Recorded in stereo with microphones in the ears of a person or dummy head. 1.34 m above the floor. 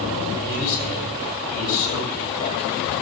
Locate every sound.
0.4 s a man speaking: 50° left (ahead or behind), 7.5 m